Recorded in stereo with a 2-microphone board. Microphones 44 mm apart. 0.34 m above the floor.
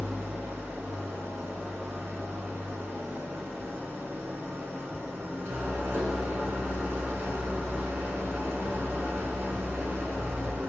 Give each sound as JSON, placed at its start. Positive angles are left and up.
{"t": 0.0, "sound": "an engine running", "side_deg": -75, "distance_m": 0.8}